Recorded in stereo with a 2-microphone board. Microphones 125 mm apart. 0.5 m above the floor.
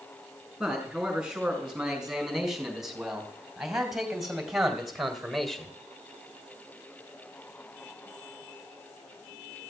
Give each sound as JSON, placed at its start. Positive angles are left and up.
{"t": 0.6, "sound": "a man speaking", "side_deg": -5, "distance_m": 5.5}